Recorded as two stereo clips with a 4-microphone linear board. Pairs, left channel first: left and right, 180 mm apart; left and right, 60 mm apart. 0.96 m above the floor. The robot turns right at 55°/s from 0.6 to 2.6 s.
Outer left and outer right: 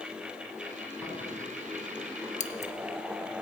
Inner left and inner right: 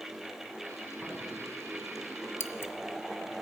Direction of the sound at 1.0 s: 10° right (ahead or behind).